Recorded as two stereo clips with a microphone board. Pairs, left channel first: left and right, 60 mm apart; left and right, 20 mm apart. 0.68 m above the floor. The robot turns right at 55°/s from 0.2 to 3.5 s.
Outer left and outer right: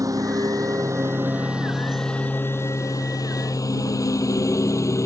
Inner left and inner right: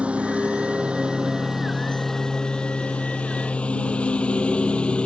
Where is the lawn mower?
80° right; by 5.1 s 60° left (ahead or behind).